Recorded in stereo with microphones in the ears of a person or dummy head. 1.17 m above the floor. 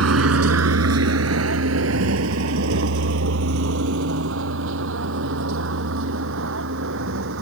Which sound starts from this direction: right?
A vehicle, at 0.0 s.